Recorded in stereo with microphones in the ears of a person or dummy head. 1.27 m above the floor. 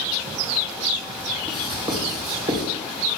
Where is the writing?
30° right (ahead or behind), 3 m.